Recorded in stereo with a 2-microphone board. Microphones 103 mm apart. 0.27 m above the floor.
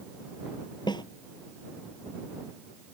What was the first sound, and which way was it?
A snare drum, 50° left (ahead or behind).